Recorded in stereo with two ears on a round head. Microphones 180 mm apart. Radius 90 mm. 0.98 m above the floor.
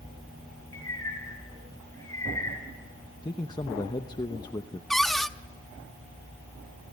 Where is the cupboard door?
Centre (ahead or behind), 0.6 m.